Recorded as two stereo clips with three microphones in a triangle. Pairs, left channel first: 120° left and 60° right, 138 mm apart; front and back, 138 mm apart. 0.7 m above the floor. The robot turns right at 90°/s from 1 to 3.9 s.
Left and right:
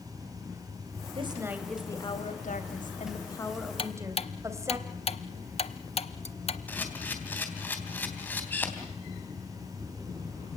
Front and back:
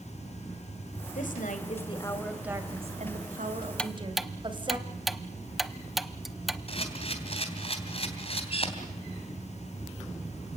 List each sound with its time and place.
1.1 s a woman speaking: 15° right, 3 m; by 4.8 s 130° right, 3 m
3.8 s ticking: 80° left, 0.9 m; by 6.6 s 90° left, 0.9 m
6.7 s a camera shutter: 45° left, 3 m